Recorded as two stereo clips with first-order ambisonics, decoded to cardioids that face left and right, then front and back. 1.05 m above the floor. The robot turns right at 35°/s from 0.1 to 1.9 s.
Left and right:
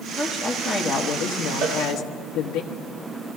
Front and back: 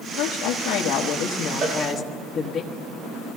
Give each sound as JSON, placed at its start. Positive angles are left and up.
{"t": 0.2, "sound": "a woman speaking", "azimuth_deg": 5, "distance_m": 1.2}
{"t": 1.6, "sound": "a cowbell", "azimuth_deg": -130, "distance_m": 2.5}